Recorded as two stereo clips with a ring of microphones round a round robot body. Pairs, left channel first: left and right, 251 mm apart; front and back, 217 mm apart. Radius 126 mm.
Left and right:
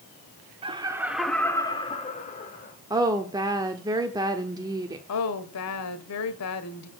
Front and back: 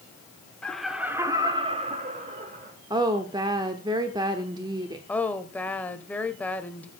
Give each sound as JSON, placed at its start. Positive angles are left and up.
{"t": 0.6, "sound": "laughter", "azimuth_deg": -75, "distance_m": 1.2}
{"t": 2.9, "sound": "a woman speaking", "azimuth_deg": -140, "distance_m": 1.0}
{"t": 5.1, "sound": "a woman speaking", "azimuth_deg": 85, "distance_m": 1.5}